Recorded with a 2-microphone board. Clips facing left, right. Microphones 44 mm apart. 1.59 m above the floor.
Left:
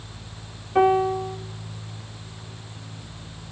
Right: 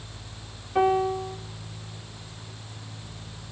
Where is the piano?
15° left (ahead or behind), 1.2 m.